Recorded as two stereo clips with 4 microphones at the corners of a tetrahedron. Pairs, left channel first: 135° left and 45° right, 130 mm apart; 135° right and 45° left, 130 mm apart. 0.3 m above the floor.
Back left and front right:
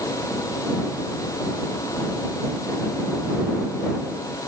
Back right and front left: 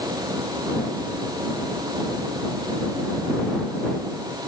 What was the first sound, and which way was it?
Only background noise.